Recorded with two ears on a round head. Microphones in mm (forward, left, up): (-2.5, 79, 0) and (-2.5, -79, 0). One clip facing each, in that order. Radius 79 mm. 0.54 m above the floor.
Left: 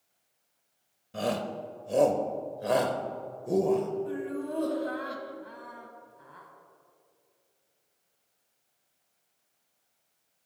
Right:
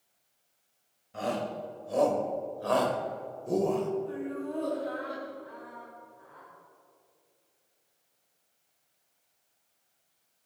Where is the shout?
45° left (ahead or behind), 2.0 m; by 3.9 s centre (ahead or behind), 1.9 m.